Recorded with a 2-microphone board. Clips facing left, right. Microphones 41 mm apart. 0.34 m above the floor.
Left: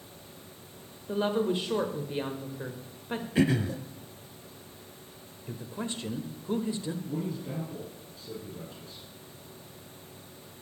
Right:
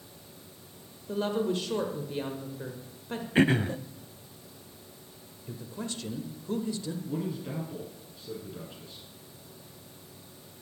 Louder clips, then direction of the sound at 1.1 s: Left 1 dB; 20° left (ahead or behind).